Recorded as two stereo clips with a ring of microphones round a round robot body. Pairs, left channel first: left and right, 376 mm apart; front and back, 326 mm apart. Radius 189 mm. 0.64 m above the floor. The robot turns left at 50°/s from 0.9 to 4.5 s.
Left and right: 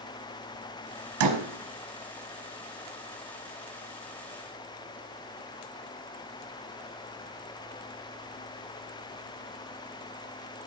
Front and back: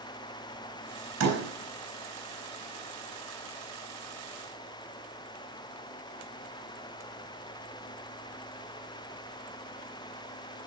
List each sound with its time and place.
1.2 s a door slam: 130° right, 4 m; by 1.4 s 140° right, 4 m